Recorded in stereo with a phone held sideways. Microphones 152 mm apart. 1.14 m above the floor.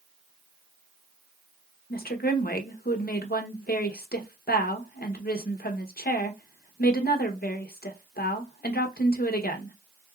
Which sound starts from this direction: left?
A woman speaking, at 1.9 s.